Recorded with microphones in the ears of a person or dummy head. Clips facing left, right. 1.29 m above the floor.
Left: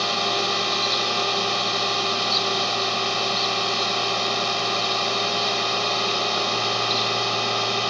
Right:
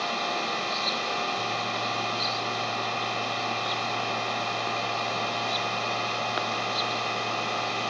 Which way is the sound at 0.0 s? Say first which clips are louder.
Left 5 dB; 55° left (ahead or behind).